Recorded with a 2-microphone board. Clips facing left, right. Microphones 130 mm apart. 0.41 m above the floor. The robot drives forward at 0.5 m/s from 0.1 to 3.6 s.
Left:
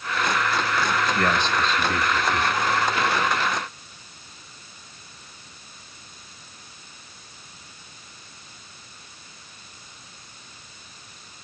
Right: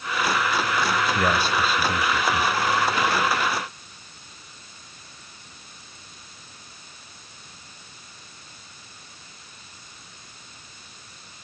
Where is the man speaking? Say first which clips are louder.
Even; 10° right (ahead or behind), 1.4 m; by 2.6 s 5° right (ahead or behind), 2 m.